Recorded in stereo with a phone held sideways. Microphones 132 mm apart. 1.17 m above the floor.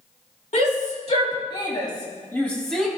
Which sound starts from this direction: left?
A shout, at 0.5 s.